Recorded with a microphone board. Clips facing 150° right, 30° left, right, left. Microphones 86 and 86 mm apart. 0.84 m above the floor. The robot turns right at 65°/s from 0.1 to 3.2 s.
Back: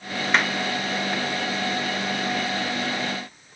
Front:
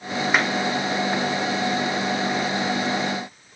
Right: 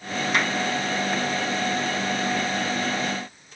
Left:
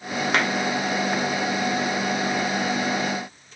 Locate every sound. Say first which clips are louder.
0.3 s a clap: even, left 2 dB; 105° left, 1.9 m; by 0.5 s 115° left, 1.9 m